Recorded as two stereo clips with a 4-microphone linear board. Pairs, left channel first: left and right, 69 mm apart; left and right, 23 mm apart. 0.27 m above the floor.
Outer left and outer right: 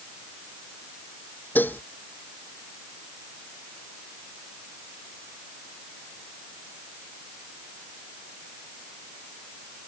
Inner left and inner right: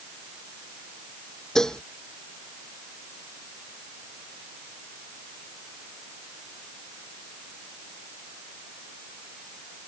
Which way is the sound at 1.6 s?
25° left (ahead or behind).